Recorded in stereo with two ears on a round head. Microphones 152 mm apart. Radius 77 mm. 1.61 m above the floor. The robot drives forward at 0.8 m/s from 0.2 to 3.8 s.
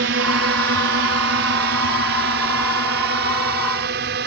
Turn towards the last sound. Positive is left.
turn(degrees=-70)  # may be behind; listen again after turning